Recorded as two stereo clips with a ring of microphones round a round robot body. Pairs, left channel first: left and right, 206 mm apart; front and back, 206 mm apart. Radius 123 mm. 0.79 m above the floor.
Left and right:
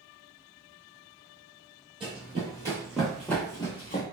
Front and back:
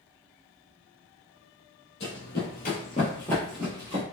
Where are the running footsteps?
25° right, 1.3 m; by 4.0 s 135° left, 0.9 m.